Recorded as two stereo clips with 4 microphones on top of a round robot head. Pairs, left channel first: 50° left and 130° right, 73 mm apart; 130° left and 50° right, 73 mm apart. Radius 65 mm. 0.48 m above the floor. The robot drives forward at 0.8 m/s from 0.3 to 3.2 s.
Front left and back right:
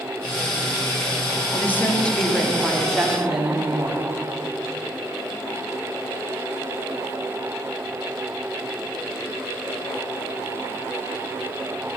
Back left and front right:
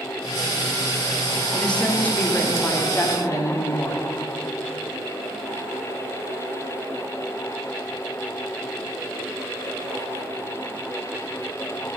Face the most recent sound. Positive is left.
turn(degrees=150)